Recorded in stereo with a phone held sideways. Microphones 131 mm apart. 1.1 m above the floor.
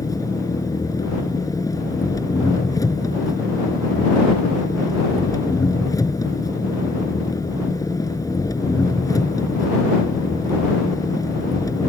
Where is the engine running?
25° left (ahead or behind).